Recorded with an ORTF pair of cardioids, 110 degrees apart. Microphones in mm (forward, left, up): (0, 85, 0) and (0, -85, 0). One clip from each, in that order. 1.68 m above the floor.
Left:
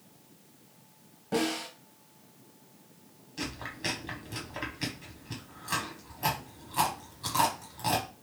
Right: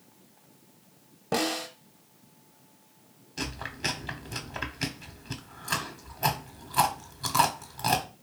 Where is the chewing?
35° right, 0.8 m.